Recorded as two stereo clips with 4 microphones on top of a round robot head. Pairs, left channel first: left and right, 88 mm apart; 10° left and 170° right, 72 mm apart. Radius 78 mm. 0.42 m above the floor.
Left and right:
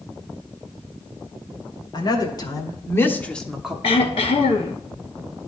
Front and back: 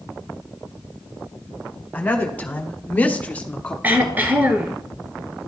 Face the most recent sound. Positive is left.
turn(degrees=125)